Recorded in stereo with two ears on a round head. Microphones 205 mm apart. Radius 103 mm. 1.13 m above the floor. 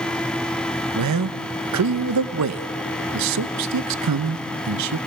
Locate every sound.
0.9 s a man speaking: 85° right, 0.7 m